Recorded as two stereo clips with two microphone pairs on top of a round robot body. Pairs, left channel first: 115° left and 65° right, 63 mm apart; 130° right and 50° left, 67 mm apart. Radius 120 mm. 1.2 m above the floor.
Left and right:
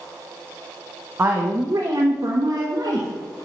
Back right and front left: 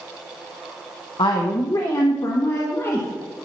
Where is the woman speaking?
125° right, 1.2 m; by 3.1 s 80° right, 1.9 m.